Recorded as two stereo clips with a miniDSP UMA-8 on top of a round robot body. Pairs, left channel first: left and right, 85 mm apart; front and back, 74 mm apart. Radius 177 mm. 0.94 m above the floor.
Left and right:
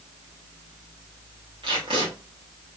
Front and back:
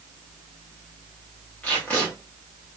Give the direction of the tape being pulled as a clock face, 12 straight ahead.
2 o'clock.